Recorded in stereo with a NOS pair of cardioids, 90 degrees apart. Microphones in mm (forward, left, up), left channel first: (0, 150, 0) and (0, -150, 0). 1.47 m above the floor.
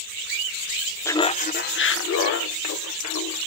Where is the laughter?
10° left, 0.8 m; by 3.4 s 65° left, 2.5 m.